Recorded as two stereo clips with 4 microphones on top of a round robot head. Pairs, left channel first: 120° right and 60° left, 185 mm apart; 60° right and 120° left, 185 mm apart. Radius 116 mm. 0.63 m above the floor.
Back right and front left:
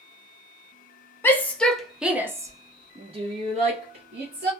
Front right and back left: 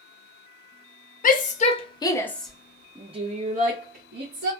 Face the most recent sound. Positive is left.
turn(degrees=105)